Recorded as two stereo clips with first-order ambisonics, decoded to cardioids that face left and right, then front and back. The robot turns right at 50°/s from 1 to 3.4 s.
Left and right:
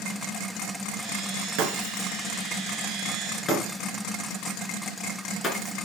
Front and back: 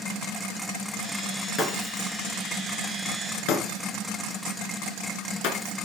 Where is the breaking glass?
65° right, 2.5 m; by 5.7 s 25° left, 2.5 m.